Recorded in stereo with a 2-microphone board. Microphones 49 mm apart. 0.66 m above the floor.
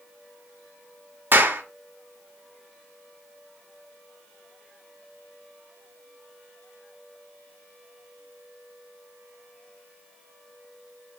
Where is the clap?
40° right (ahead or behind), 1.3 m.